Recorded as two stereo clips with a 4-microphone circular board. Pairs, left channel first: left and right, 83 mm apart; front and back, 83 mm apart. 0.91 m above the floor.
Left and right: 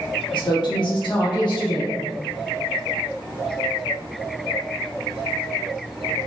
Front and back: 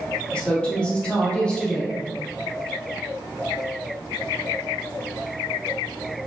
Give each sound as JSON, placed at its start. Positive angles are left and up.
{"t": 0.3, "sound": "a woman speaking", "azimuth_deg": 75, "distance_m": 1.2}